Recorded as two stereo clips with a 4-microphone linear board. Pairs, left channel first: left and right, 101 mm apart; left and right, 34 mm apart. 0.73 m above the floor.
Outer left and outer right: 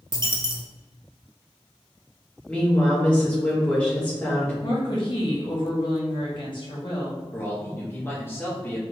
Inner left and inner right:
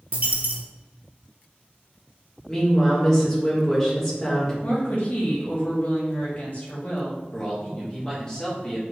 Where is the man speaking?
20° left (ahead or behind), 1.3 m.